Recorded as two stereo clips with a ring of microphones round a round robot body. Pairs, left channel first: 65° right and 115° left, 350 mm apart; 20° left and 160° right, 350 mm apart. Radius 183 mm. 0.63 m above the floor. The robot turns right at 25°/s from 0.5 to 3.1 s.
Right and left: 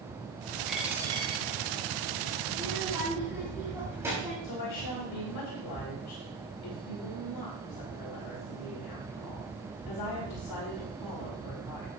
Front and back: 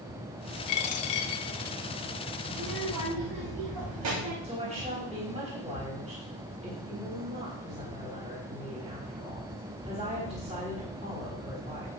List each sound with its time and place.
0.7 s a dropped coin: 20° left, 1.0 m; by 1.8 s 50° left, 1.0 m
2.5 s a child speaking: straight behind, 3.5 m; by 4.3 s 165° right, 3.5 m
4.4 s a woman speaking: 85° right, 3.5 m